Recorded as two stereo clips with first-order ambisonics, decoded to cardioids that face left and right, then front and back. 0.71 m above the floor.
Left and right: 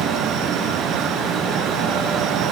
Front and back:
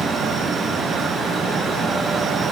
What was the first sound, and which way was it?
Only background noise.